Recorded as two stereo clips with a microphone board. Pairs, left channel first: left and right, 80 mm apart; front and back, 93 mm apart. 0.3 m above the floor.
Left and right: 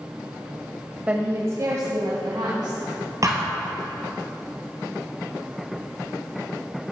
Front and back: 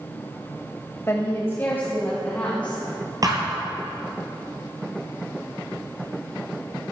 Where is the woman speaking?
30° right, 1.0 m; by 3.1 s 75° right, 3 m.